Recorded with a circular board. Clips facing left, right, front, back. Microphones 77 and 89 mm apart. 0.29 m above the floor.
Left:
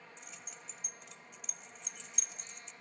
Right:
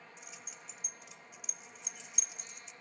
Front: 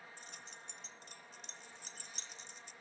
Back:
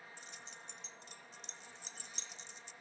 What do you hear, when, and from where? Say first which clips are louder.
0.2 s keys jangling: even, even; 10° right, 0.9 m